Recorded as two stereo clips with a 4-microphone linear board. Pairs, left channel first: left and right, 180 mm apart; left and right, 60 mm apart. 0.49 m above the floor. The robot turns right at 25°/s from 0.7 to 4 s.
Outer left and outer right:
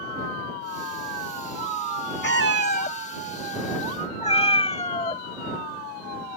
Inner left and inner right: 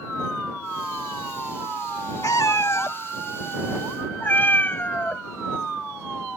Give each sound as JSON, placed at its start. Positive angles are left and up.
{"t": 2.2, "sound": "a cat meowing", "azimuth_deg": 100}